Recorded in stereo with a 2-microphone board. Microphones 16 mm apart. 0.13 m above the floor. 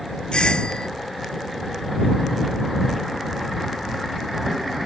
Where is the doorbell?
80° left.